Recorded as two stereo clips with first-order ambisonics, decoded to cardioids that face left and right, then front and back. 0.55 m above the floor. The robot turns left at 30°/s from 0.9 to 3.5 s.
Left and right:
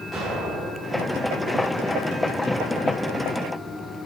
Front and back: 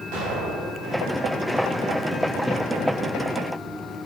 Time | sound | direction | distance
0.1 | an explosion | 175° left | 4.5 m